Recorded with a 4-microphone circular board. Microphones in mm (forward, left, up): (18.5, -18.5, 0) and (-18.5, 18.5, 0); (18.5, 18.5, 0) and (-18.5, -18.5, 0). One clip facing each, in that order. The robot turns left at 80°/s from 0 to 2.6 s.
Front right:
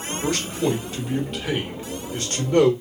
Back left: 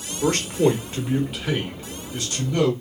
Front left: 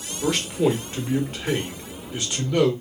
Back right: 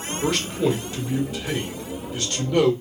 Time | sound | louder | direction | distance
0.2 | a man speaking | back left 4 dB, front left 1 dB | 140° left | 1.1 m